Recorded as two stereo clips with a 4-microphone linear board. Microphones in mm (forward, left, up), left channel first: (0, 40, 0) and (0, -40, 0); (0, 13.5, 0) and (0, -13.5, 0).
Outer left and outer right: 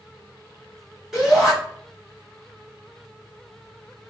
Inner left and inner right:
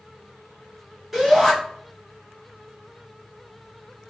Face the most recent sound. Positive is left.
turn(degrees=-5)  # may be behind; listen again after turning